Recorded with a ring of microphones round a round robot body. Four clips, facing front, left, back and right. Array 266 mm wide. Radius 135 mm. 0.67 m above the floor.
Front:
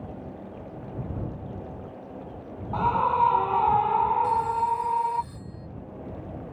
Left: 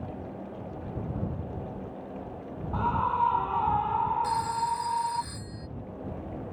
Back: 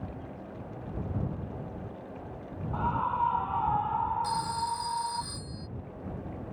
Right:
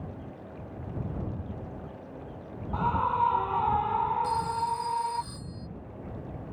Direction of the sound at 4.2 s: 155° left.